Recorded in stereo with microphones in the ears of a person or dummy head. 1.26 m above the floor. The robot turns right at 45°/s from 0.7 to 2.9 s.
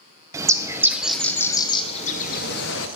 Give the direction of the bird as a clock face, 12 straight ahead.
1 o'clock.